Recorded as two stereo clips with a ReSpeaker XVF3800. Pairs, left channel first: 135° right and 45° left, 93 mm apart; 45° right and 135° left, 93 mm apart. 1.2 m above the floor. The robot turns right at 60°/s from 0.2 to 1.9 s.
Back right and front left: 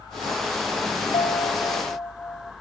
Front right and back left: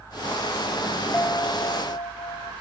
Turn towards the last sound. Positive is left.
turn(degrees=-75)